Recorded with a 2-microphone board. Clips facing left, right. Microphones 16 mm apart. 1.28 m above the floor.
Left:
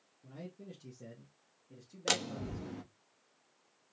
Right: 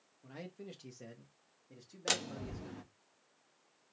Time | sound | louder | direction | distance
0.2 | a man speaking | right 1 dB | 75° right (ahead or behind) | 1.2 m
2.1 | a door slam | left 2 dB | 10° left (ahead or behind) | 0.8 m